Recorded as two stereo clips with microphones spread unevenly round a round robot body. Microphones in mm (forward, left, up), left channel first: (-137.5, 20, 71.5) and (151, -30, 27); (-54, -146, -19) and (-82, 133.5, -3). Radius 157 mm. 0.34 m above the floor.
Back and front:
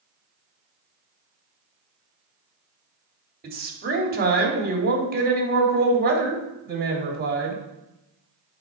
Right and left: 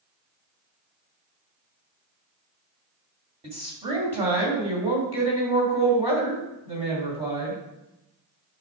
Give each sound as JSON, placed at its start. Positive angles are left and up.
{"t": 3.4, "sound": "a woman speaking", "azimuth_deg": 25, "distance_m": 2.0}